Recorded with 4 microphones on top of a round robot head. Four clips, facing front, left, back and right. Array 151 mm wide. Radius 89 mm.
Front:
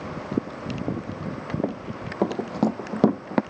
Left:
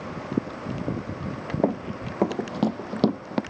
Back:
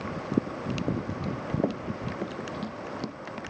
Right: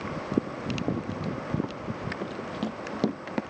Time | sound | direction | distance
1.6 | running footsteps | 90° left | ?